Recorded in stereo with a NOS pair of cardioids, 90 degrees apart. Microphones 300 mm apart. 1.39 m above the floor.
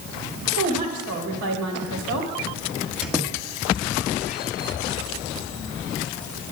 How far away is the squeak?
About 1.5 m.